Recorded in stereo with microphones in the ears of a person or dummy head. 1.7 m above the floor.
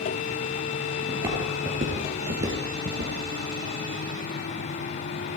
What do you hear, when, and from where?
1.1 s footsteps: 20° right (ahead or behind), 2.5 m; by 3.1 s 40° right (ahead or behind), 2 m